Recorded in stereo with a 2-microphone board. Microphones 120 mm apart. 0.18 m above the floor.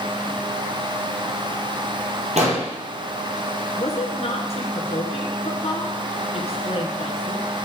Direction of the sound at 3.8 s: 60° left (ahead or behind).